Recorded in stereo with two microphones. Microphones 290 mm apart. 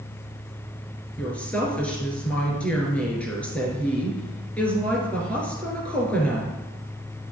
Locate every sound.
1.2 s a woman speaking: 5° left (ahead or behind), 3 m